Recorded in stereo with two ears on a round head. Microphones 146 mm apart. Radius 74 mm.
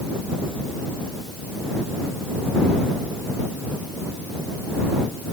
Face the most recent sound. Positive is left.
No sound to turn to.